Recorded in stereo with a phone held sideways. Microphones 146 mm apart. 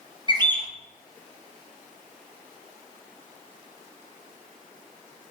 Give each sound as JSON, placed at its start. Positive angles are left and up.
{"t": 0.3, "sound": "a bird", "side_deg": -30, "distance_m": 0.7}